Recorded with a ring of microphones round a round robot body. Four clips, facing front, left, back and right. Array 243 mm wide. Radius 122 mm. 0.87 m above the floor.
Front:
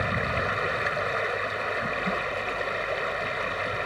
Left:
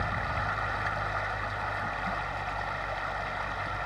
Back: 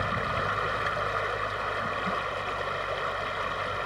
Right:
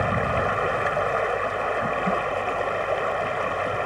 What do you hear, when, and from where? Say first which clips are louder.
0.0 s running water: right 9 dB, front 1 dB; 75° right